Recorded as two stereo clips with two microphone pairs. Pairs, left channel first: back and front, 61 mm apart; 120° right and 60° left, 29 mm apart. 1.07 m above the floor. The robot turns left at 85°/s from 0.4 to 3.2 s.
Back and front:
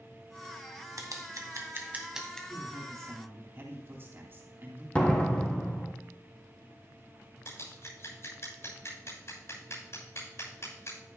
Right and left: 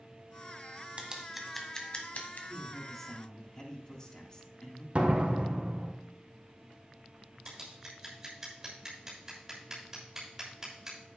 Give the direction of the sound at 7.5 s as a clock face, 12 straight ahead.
7 o'clock.